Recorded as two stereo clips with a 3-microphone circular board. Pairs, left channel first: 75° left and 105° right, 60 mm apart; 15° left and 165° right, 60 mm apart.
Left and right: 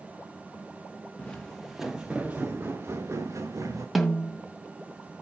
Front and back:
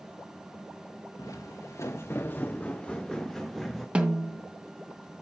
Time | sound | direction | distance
1.2 | footsteps | 5° left | 1.3 m
4.0 | a snare drum | 165° left | 1.6 m